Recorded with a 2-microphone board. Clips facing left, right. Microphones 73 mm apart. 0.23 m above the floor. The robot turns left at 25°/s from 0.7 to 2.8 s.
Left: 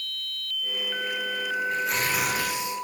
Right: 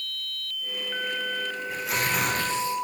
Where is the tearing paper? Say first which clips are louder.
Right 2 dB; 5° right (ahead or behind), 5 m; by 2.8 s 20° left (ahead or behind), 5 m.